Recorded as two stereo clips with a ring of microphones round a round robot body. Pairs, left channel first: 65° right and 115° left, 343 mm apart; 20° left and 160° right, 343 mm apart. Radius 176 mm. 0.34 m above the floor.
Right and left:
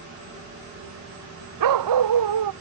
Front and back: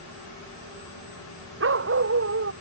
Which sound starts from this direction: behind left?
A dog barking, at 1.6 s.